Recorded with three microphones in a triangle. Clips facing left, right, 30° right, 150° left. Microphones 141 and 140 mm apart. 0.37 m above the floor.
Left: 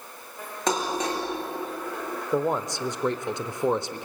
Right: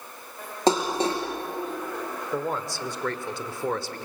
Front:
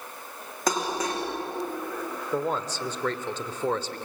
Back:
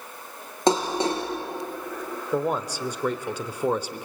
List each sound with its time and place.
0.7 s dishes clattering: 150° right, 4 m
2.3 s a man speaking: 100° left, 0.8 m